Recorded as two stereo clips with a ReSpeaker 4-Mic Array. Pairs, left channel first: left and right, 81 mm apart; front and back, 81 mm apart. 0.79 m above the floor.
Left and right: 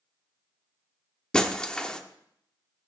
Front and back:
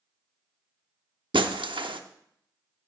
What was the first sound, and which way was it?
Breaking glass, 170° left.